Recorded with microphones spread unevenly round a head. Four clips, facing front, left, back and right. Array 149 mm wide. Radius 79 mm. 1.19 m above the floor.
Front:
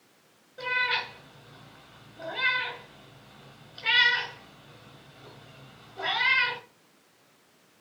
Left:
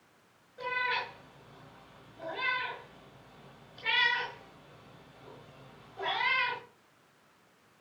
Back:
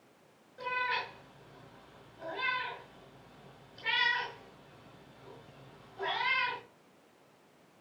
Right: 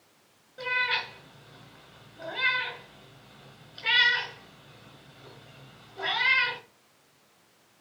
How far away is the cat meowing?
About 5.5 m.